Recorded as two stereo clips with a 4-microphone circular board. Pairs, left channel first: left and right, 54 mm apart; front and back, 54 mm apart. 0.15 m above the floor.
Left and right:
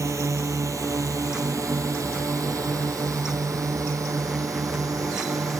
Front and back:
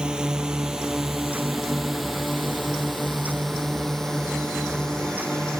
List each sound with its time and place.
0.0 s a drone: 105° right; by 5.6 s 80° right